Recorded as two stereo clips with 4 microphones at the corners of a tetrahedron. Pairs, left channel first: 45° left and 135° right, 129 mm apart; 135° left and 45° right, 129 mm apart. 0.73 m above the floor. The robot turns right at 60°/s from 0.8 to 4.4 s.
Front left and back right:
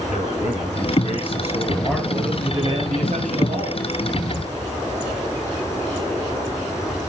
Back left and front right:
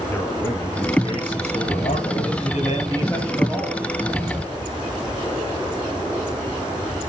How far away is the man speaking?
About 9 m.